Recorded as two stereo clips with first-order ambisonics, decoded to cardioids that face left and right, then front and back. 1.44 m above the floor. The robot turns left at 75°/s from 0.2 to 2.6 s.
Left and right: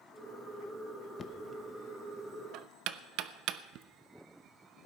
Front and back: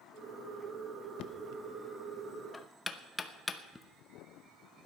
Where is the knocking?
25° left, 0.8 m; by 3.9 s 80° right, 0.8 m.